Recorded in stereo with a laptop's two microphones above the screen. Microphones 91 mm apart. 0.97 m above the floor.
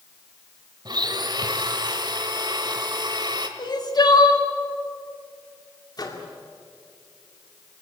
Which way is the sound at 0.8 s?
55° right (ahead or behind).